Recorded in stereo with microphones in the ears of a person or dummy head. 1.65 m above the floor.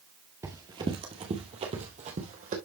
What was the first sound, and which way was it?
Running footsteps, 15° right (ahead or behind).